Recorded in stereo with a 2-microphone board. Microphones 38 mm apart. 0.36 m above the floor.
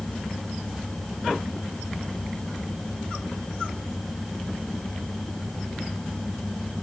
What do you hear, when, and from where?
Only background noise.